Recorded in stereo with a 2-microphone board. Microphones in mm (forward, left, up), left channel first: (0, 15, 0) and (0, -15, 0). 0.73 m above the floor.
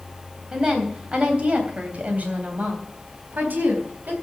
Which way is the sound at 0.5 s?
30° right (ahead or behind).